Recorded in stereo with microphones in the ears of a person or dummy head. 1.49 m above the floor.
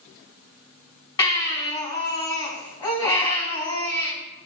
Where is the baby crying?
20° left (ahead or behind), 4 m.